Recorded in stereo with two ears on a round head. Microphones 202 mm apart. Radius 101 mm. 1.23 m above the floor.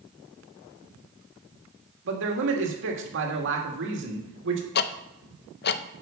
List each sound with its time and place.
2.0 s a man speaking: 55° right (ahead or behind), 2 m
4.8 s ticking: 45° left (ahead or behind), 0.5 m